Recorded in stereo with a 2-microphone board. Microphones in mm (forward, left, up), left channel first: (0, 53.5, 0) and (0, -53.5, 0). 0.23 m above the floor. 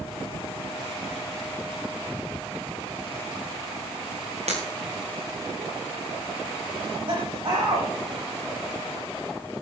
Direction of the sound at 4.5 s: 85° right.